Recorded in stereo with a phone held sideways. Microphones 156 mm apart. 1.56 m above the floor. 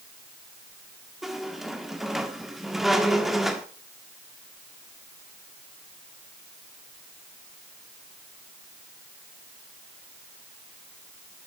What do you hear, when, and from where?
1.2 s a squeak: centre (ahead or behind), 1.6 m